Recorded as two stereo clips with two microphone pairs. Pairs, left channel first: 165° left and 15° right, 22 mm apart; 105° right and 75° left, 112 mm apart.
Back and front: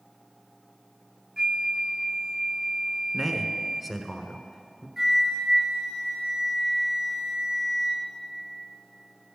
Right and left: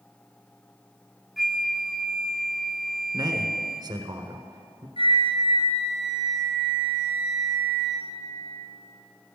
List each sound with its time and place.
1.4 s a flute: 10° right, 0.8 m
3.1 s a man speaking: 70° left, 1.3 m
5.0 s a flute: 85° right, 3 m